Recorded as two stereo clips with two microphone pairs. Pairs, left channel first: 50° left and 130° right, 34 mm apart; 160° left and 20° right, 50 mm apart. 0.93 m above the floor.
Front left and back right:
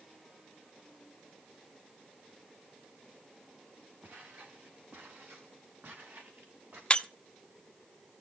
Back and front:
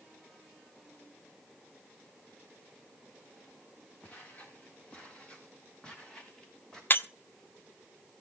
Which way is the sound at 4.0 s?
145° right.